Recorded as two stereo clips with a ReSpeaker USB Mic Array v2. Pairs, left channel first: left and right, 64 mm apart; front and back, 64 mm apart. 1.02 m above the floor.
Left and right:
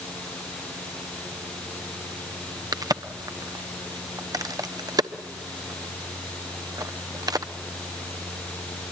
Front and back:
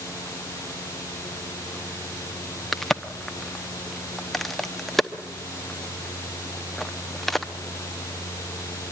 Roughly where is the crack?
Right.